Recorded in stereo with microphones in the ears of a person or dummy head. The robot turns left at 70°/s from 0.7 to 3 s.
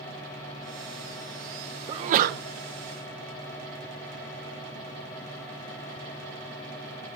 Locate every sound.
1.9 s a sneeze: 30° right, 0.8 m; by 2.4 s 65° right, 0.8 m